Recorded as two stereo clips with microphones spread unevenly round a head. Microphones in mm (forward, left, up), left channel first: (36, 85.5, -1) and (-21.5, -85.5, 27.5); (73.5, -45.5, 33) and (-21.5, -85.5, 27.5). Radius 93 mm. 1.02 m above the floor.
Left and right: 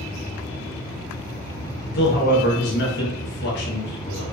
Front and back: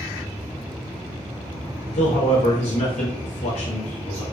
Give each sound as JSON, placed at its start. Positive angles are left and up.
{"t": 1.9, "sound": "a man speaking", "azimuth_deg": 45, "distance_m": 0.9}